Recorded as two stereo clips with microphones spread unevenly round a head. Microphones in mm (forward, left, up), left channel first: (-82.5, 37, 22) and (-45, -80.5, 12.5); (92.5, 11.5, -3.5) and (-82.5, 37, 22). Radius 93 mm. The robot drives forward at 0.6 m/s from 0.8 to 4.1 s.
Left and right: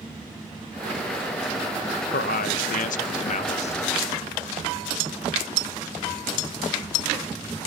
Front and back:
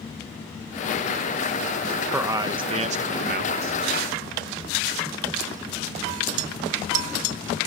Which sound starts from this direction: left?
A man speaking, at 2.1 s.